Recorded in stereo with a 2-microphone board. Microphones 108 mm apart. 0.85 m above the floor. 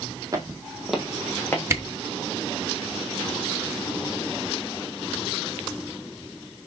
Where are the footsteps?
30° right (ahead or behind), 1.8 m; by 1.6 s 20° left (ahead or behind), 2.5 m.